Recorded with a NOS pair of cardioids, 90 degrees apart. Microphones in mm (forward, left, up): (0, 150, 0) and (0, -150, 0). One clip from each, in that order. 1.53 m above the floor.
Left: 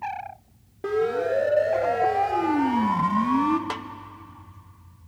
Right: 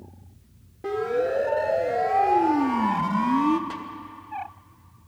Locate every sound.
0.8 s a siren: 35° left, 2.5 m; by 3.6 s 5° right, 1.5 m
3.7 s a snare drum: 55° left, 0.9 m